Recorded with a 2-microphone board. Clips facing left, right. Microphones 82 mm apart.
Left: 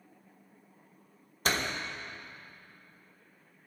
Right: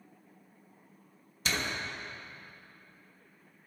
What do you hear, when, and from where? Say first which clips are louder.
1.4 s a door slam: left 3 dB; 45° left (ahead or behind), 1.2 m